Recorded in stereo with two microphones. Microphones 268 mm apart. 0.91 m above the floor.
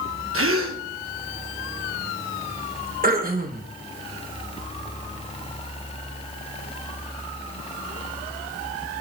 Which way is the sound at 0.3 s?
50° right (ahead or behind).